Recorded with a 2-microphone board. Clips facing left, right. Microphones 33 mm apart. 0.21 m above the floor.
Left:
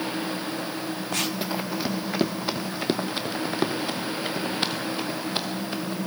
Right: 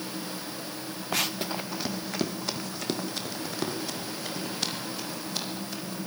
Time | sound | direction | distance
1.1 | running footsteps | 5° right (ahead or behind) | 0.7 m